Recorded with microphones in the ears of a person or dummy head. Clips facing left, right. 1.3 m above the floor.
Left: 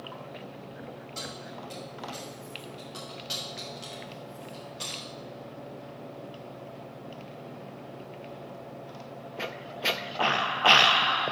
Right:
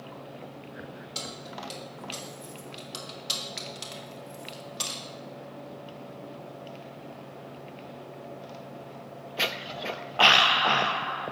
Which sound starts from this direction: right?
Keys jangling, at 1.1 s.